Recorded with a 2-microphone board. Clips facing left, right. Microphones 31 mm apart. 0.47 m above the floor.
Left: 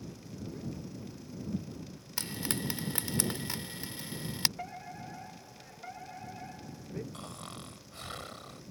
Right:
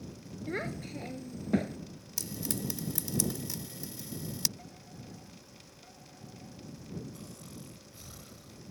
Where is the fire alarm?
45° left (ahead or behind).